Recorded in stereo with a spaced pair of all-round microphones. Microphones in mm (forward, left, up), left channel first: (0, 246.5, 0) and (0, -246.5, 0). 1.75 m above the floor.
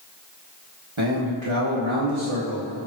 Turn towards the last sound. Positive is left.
turn(degrees=-65)  # may be behind; listen again after turning